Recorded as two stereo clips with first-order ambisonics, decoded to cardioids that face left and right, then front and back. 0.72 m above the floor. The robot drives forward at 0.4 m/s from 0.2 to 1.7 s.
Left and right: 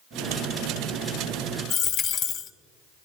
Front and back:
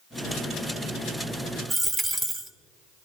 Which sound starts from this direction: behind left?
A dropped coin, at 1.7 s.